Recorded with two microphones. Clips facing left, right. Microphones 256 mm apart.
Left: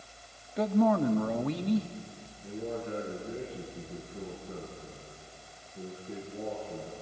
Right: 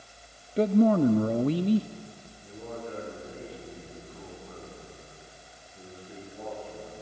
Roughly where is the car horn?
I don't hear a car horn.